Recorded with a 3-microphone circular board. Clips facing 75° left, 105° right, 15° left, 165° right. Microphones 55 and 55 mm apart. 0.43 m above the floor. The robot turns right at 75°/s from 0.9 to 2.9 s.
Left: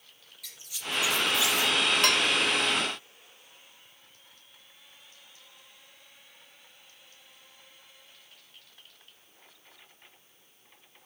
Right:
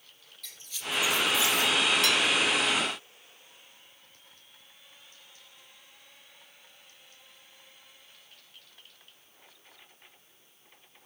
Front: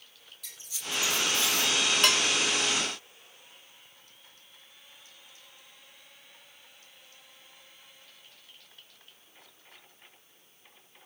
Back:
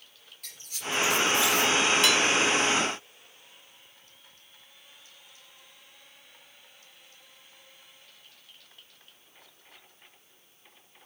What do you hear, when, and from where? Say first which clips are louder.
0.4 s a squeak: even, back 4 dB; 155° left, 5.5 m; by 1.7 s 145° right, 5.5 m
2.0 s dishes clattering: left 1 dB, back 2 dB; 50° left, 1.6 m; by 2.2 s 65° left, 1.6 m